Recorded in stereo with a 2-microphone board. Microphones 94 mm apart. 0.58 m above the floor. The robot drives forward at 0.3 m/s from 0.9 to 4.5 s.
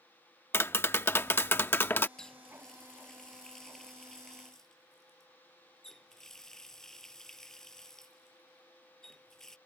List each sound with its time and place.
0.5 s tapping: 25° left (ahead or behind)
2.2 s a running tap: 5° left (ahead or behind)